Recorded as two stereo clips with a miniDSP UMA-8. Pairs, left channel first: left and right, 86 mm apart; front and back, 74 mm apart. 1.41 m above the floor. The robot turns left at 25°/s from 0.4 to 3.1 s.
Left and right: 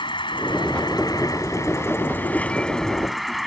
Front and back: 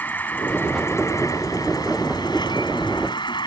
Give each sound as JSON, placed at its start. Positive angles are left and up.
{"t": 0.0, "sound": "an insect", "azimuth_deg": 65}